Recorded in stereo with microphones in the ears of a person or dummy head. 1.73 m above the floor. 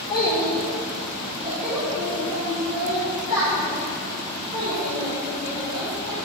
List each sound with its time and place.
0.1 s a child speaking: 25° left (ahead or behind), 1.2 m; by 6.2 s 30° right (ahead or behind), 3.5 m